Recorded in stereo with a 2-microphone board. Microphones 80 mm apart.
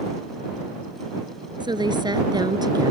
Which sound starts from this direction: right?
A woman speaking, at 1.6 s.